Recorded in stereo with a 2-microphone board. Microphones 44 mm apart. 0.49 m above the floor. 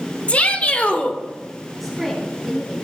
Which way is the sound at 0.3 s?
30° left (ahead or behind).